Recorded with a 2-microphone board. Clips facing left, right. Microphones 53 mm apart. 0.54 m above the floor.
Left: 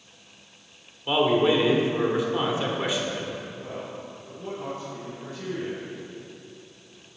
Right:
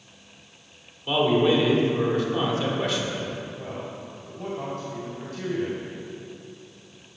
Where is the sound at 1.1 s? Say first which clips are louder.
Even; 15° left (ahead or behind), 1.4 m.